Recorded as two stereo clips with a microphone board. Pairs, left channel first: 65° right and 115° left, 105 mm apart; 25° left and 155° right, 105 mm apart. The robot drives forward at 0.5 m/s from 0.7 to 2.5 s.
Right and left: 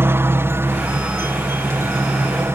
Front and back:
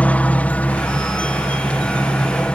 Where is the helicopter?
80° left; by 2.5 s 90° left.